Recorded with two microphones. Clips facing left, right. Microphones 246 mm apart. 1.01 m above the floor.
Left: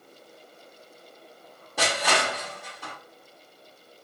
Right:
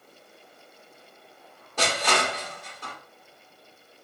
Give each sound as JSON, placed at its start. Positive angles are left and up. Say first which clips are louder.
{"t": 1.8, "sound": "crushing", "louder": "even", "side_deg": 10, "distance_m": 2.5}